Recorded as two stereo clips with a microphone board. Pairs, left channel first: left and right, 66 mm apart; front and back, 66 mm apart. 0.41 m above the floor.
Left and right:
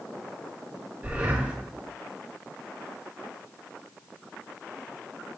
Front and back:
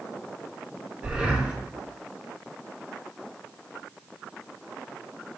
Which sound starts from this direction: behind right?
Breathing, at 1.0 s.